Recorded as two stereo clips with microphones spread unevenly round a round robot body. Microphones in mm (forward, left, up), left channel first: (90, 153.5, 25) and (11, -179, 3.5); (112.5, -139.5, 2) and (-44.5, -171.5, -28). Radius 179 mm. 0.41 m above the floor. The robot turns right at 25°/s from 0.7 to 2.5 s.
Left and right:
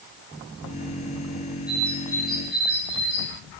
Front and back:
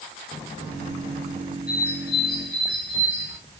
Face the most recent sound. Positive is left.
turn(degrees=20)